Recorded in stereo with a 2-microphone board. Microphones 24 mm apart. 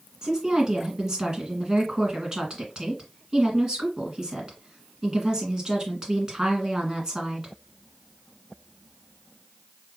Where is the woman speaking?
30° right (ahead or behind), 1.7 m.